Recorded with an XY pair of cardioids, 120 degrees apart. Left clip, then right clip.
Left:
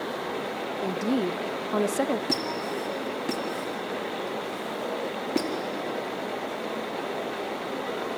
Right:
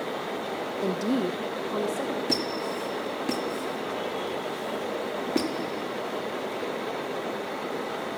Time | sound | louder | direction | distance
0.8 | a woman speaking | even | 15° right | 0.8 m
2.3 | a squeak | even | straight ahead | 2 m